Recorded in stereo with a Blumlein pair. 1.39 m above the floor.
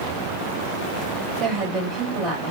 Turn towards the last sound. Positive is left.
turn(degrees=-25)